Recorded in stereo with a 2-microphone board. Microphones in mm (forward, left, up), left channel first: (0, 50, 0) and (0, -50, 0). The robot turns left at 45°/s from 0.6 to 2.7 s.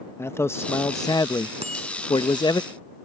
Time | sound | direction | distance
0.2 | a man speaking | 145° left | ?
1.6 | a bicycle bell | 85° right | ?